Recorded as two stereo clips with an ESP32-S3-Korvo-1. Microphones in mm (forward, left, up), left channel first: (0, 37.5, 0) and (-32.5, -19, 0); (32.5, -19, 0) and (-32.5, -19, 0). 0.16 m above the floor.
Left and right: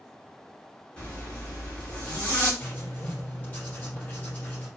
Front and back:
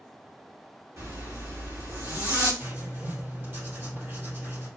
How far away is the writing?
About 3.5 m.